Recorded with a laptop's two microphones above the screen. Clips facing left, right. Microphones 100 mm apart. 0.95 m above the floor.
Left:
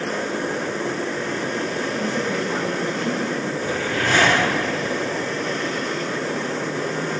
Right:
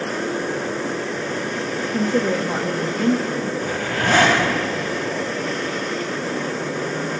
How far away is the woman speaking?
About 1.0 m.